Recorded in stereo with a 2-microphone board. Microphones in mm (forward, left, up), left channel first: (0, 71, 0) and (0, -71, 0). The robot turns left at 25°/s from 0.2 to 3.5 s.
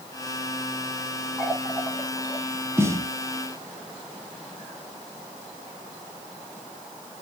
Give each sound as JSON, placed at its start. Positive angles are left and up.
{"t": 1.4, "sound": "a running tap", "side_deg": 10, "distance_m": 9.0}
{"t": 2.8, "sound": "a snare drum", "side_deg": -15, "distance_m": 2.5}